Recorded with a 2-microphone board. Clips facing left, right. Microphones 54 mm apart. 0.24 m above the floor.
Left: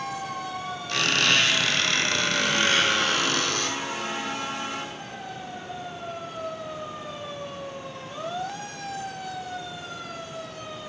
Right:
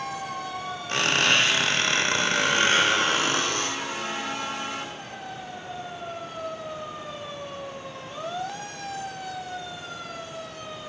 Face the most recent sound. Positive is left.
turn(degrees=-35)  # may be behind; listen again after turning